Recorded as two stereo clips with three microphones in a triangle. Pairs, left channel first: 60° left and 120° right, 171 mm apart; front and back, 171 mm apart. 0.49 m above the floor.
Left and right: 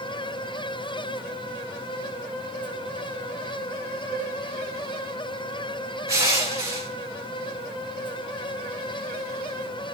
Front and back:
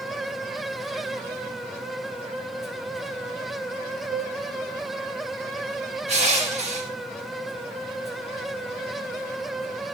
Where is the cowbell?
165° right, 0.9 m.